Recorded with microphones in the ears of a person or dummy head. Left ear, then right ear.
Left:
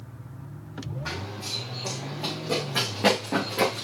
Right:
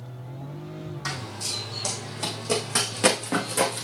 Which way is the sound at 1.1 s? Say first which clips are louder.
Right 2 dB; 60° right (ahead or behind).